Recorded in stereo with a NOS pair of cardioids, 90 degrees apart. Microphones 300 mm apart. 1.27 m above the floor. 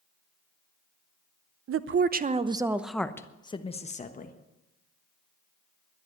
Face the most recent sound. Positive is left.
turn(degrees=30)